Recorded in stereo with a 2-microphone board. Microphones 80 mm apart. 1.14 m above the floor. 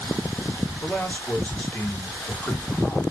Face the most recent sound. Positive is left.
turn(degrees=15)  # may be behind; listen again after turning